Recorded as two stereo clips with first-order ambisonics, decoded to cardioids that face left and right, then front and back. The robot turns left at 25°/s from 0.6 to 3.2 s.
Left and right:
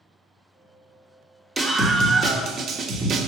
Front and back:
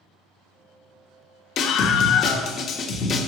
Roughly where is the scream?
Ahead.